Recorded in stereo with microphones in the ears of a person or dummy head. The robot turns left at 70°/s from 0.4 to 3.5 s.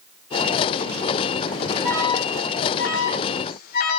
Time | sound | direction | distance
1.8 | an alarm | 5° left (ahead or behind) | 4 m